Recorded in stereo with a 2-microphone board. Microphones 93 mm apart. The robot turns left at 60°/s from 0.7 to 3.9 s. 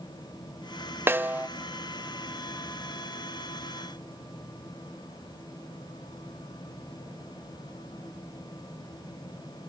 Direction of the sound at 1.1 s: 25° right (ahead or behind).